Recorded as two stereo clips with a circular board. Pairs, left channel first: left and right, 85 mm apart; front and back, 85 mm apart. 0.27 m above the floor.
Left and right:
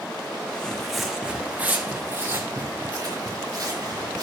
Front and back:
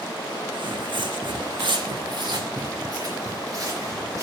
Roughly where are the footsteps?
Behind.